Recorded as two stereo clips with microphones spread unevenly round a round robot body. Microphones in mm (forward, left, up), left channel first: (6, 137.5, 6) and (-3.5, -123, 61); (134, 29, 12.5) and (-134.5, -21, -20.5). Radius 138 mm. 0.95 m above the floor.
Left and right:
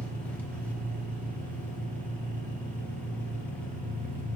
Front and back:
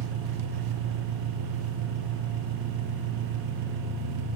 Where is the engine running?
175° left, 0.8 m.